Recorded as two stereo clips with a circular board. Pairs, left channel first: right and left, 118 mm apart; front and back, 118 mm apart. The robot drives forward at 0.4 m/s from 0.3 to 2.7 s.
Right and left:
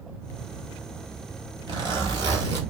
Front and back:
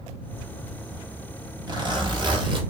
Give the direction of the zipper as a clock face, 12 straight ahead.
7 o'clock.